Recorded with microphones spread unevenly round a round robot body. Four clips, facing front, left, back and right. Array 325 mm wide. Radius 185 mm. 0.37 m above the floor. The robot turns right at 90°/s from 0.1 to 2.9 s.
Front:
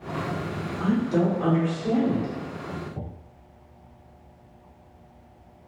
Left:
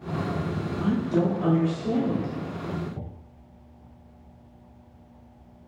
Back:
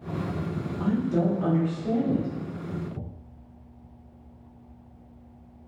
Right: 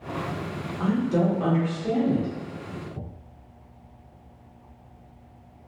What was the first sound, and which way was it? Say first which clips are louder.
A woman speaking: right 1 dB, front 2 dB; 95° right.